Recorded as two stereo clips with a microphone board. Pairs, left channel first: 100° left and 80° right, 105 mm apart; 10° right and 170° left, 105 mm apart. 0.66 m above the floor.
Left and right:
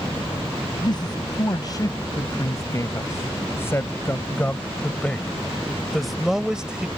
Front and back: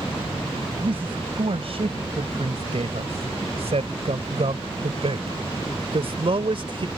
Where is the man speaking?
145° left; by 6.9 s 160° right.